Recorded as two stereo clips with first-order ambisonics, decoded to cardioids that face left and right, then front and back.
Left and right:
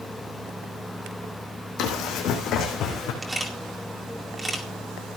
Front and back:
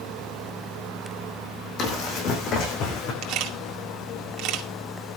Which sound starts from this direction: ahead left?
Running footsteps, at 1.8 s.